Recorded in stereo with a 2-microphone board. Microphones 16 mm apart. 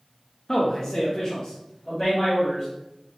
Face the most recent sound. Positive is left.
turn(degrees=25)  # may be behind; listen again after turning